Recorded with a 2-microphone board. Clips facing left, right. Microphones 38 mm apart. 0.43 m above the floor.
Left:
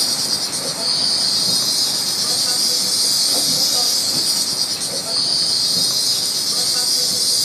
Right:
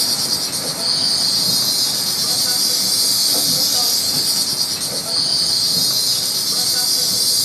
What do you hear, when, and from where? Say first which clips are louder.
0.0 s an insect: right 1 dB; 15° right (ahead or behind), 1.4 m